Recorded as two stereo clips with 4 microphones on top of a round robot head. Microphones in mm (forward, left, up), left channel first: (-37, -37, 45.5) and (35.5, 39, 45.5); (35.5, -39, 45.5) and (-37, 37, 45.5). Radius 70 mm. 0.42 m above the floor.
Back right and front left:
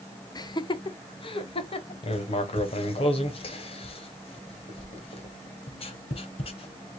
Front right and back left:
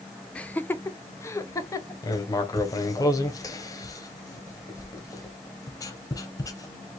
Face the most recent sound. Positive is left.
turn(degrees=-105)